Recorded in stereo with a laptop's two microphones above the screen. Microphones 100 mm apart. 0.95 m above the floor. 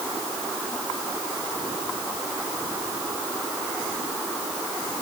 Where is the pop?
No pop in this recording.